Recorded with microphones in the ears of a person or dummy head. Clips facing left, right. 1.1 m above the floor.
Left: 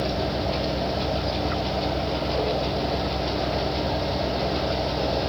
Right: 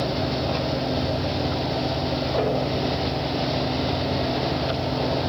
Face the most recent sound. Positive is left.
turn(degrees=-30)  # may be behind; listen again after turning